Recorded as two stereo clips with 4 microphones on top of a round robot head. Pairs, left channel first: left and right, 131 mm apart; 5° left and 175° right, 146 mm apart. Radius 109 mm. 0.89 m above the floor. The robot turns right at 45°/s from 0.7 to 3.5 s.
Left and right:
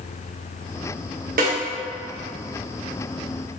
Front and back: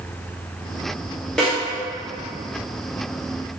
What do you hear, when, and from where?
1.4 s a snare drum: 80° right, 0.7 m; by 1.6 s 70° right, 0.7 m